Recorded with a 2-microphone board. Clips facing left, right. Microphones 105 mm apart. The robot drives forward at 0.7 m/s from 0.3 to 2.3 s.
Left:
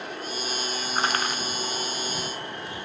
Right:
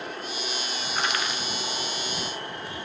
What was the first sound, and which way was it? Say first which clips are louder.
Crushing: left 2 dB; 35° left (ahead or behind).